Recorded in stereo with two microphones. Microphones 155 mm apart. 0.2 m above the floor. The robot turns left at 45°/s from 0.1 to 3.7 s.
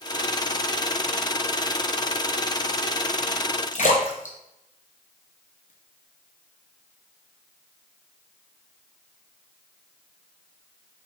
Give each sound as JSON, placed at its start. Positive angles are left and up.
{"t": 3.7, "sound": "a splash", "side_deg": 65, "distance_m": 0.9}